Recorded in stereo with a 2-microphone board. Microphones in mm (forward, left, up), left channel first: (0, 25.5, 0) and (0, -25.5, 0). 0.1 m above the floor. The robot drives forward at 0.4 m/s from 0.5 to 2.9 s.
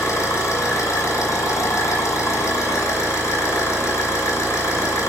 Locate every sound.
0.0 s an engine running: 65° left (ahead or behind), 1.1 m; by 5.1 s 55° left (ahead or behind), 1.3 m